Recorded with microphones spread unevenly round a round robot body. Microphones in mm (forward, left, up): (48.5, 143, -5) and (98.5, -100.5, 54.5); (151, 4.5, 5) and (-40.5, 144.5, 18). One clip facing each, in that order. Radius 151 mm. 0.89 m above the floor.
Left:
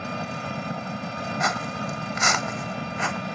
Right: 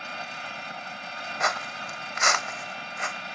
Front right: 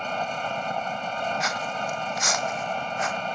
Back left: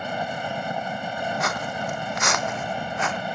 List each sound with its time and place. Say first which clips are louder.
0.0 s an engine running: left 10 dB, back left 1 dB; 65° left
1.4 s footsteps: left 2 dB, back left 2 dB; 120° left; by 3.2 s 150° left